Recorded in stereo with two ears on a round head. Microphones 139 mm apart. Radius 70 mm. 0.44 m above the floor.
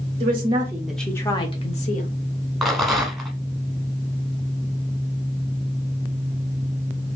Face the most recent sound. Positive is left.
turn(degrees=0)  # may be behind; listen again after turning